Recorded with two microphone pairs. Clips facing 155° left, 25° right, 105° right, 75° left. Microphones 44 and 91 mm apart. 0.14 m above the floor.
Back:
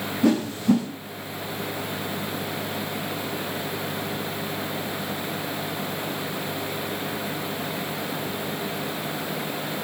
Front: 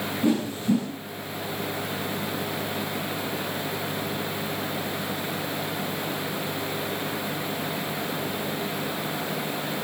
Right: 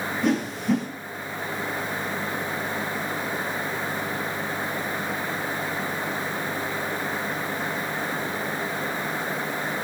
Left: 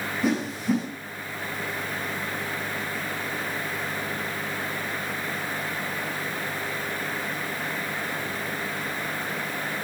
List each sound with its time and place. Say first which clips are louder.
0.2 s a whoosh: back 4 dB, right 1 dB; 160° left, 8.5 m